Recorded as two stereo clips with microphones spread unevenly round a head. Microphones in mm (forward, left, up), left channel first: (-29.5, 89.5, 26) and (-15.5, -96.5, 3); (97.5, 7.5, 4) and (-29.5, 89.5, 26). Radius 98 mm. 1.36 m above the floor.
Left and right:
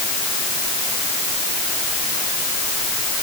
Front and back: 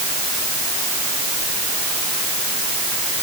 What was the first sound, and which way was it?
Only background noise.